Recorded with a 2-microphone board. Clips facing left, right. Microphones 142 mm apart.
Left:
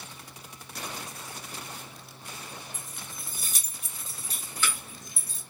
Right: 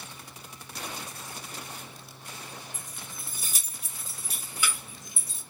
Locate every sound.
2.7 s keys jangling: centre (ahead or behind), 2.5 m; by 5.4 s 25° right (ahead or behind), 1.0 m